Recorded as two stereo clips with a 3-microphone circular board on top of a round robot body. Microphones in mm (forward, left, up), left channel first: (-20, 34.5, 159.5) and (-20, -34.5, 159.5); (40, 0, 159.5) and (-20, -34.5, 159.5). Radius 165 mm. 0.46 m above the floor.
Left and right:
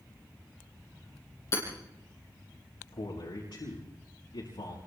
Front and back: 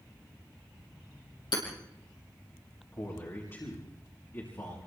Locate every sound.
1.5 s hammering: 40° left, 7 m
2.9 s a man speaking: 85° left, 6 m